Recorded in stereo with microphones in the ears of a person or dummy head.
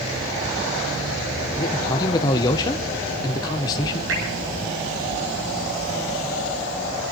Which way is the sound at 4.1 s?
75° right (ahead or behind).